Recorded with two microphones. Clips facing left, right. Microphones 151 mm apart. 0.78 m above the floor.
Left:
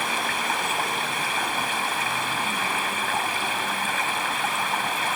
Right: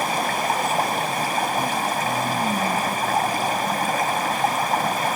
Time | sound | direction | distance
0.0 | running water | 40° right (ahead or behind) | ?